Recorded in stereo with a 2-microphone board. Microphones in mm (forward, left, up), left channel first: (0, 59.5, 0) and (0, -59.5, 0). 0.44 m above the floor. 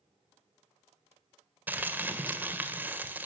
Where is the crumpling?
15° right (ahead or behind), 1.7 m.